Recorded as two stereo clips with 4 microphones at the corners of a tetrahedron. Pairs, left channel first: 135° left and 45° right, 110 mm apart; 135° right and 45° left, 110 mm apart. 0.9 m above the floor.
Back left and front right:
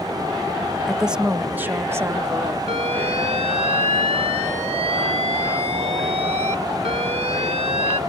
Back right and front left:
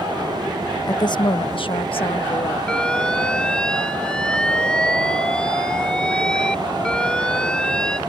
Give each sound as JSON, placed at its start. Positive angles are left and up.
{"t": 0.8, "sound": "a woman speaking", "azimuth_deg": -135}
{"t": 2.7, "sound": "an alarm", "azimuth_deg": -55}